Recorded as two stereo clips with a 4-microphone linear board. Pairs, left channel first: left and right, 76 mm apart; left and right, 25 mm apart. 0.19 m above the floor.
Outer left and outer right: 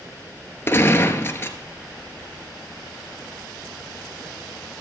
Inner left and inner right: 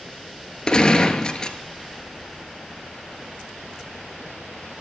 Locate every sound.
0.7 s a gunshot: 30° left (ahead or behind), 1.0 m